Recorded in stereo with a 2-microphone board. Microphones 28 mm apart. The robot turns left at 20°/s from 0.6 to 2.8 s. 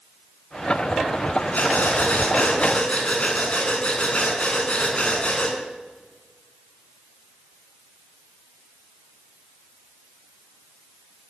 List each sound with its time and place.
1.5 s breathing: 65° left (ahead or behind), 5 m; by 5.6 s 45° left (ahead or behind), 5 m